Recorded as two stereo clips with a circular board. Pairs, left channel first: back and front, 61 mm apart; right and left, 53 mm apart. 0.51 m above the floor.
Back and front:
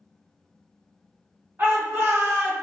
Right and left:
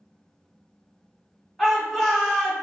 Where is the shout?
Straight ahead, 1.4 m.